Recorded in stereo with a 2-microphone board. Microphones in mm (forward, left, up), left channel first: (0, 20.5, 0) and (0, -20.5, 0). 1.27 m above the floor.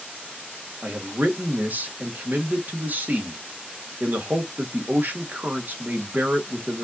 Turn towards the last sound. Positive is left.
turn(degrees=-45)  # may be behind; listen again after turning